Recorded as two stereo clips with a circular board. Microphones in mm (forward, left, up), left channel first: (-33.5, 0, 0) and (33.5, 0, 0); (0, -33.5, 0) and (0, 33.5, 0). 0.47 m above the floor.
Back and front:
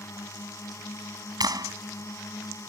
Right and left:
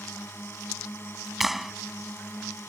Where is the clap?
5° left.